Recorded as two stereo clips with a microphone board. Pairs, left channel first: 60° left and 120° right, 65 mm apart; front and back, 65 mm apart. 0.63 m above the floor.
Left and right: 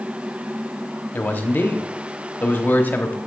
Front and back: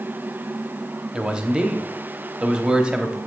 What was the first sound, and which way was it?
A man speaking, 110° left.